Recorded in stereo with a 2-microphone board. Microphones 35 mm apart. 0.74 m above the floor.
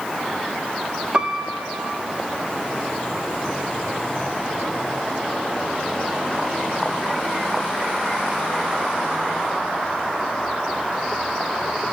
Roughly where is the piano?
Right.